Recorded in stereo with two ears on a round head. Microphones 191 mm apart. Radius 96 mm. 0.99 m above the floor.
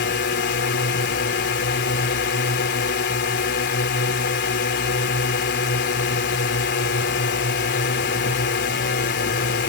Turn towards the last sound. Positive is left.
turn(degrees=55)  # may be behind; listen again after turning